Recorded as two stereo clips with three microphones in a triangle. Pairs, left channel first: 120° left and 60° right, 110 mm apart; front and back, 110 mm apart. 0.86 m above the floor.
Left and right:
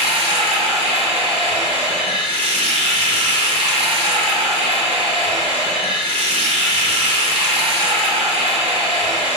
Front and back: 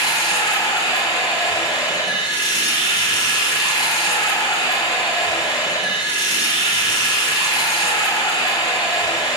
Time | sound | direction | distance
0.0 | running water | 50° right | 2 m